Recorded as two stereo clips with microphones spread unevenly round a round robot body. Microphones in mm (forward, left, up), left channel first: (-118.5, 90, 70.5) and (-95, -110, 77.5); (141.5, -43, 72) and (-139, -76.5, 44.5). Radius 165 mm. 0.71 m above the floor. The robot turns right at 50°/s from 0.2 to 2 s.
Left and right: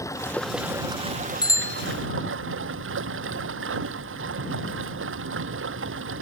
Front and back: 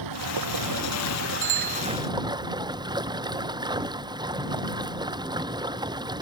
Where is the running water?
170° left; by 6.2 s 100° right.